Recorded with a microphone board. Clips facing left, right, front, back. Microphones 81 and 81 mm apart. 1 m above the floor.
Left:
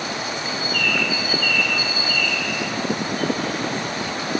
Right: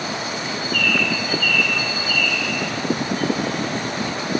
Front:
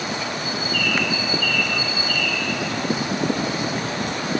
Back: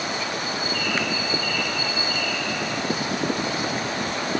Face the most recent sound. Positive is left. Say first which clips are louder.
# right 2 dB, front 2 dB
turn(degrees=5)